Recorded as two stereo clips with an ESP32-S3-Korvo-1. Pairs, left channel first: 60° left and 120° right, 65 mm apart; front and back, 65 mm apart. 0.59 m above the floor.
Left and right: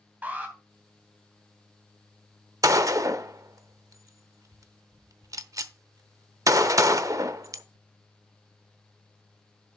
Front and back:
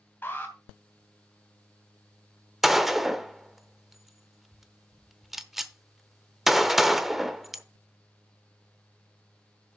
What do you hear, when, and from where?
0.2 s an alarm: 60° right, 2.5 m
2.6 s a gunshot: 95° right, 0.7 m